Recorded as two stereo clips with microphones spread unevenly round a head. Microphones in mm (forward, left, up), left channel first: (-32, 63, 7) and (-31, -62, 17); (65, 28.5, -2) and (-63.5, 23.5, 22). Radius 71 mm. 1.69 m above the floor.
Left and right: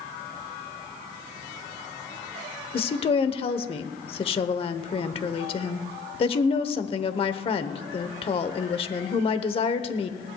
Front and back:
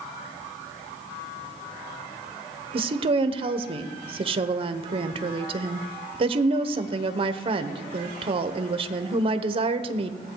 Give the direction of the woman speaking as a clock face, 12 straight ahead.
7 o'clock.